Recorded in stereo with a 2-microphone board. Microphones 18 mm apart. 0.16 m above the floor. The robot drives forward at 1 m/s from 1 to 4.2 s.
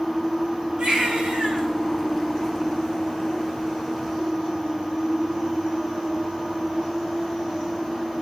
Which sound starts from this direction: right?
A baby crying, at 0.8 s.